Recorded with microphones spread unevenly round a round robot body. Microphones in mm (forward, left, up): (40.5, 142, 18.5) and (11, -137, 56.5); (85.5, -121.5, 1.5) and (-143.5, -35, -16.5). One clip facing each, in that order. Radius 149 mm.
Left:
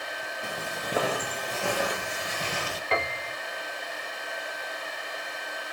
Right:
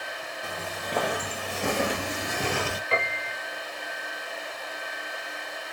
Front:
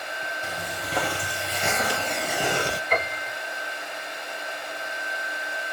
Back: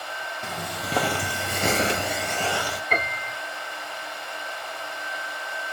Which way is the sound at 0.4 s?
160° left.